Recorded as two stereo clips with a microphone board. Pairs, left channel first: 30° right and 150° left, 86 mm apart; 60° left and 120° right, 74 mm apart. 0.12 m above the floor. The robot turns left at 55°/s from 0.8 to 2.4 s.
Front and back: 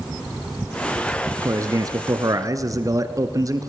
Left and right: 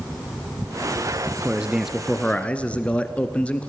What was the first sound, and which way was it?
A man speaking, 175° right.